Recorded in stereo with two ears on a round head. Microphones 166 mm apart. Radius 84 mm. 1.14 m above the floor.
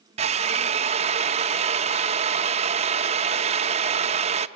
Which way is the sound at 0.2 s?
35° right (ahead or behind).